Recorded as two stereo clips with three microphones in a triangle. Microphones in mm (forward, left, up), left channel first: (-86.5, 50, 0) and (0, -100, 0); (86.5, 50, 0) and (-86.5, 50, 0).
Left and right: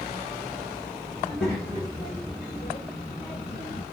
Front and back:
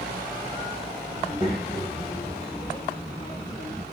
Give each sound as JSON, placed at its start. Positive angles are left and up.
{"t": 1.2, "sound": "a child speaking", "azimuth_deg": 45, "distance_m": 2.5}